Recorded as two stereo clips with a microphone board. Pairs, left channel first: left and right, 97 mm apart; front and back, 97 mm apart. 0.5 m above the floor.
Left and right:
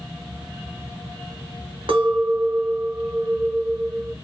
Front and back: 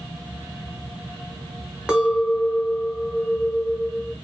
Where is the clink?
100° right, 0.9 m.